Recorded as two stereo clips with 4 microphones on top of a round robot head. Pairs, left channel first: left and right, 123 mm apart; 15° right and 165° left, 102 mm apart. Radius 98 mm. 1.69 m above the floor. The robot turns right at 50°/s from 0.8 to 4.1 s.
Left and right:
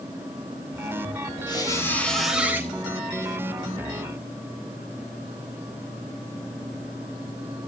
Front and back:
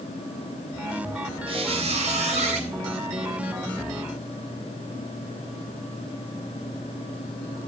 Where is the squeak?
140° left, 4 m; by 2.7 s 160° right, 4 m.